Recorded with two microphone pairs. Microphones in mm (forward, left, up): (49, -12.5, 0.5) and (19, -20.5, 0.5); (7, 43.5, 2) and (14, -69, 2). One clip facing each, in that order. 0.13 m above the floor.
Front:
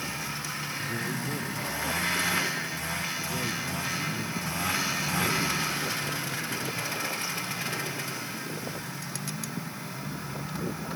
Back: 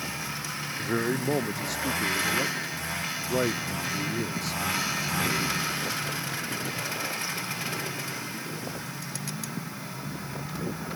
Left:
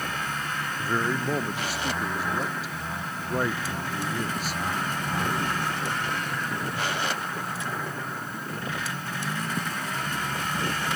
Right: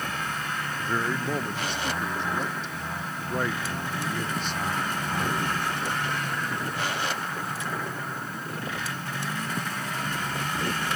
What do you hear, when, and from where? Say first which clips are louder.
0.8 s a man speaking: back 8 dB, left 2 dB; straight behind